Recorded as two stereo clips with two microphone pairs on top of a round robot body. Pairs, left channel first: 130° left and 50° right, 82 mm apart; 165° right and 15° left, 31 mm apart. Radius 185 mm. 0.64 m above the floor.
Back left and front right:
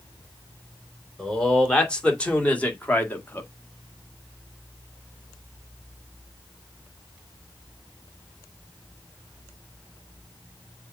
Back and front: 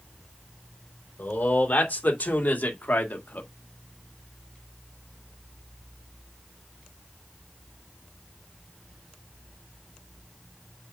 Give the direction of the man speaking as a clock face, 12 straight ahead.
5 o'clock.